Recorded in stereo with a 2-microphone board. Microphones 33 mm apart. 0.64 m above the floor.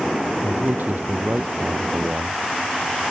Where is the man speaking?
60° right (ahead or behind).